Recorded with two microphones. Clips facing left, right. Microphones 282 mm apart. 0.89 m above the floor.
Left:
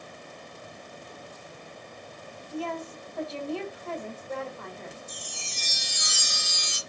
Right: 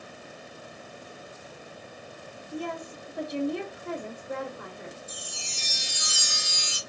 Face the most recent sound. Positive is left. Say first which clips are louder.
# even
turn(degrees=-5)  # may be behind; listen again after turning